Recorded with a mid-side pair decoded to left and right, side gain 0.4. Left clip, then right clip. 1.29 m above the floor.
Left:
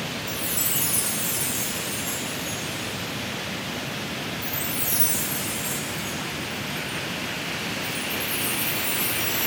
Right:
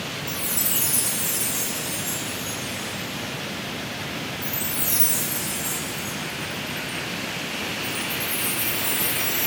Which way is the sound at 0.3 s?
20° right.